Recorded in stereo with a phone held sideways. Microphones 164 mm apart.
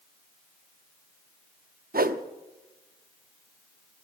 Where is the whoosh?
65° right (ahead or behind), 0.6 m.